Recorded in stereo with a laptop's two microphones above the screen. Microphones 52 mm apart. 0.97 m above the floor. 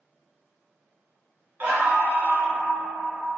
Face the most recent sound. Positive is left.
turn(degrees=-40)  # may be behind; listen again after turning